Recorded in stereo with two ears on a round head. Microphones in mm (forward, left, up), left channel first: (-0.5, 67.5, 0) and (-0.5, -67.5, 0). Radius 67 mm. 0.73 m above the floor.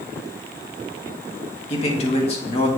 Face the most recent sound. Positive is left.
turn(degrees=40)  # may be behind; listen again after turning